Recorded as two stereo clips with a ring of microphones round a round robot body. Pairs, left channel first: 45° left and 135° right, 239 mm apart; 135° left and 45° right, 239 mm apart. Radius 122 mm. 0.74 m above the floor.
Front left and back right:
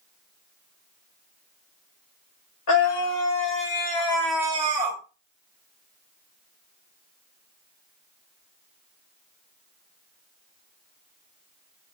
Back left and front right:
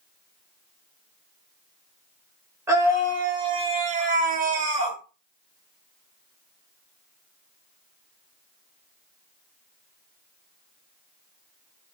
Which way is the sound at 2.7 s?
30° left.